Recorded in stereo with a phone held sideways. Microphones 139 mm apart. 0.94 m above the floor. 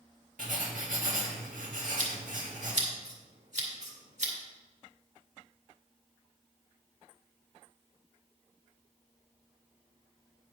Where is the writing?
70° right (ahead or behind), 1.9 m.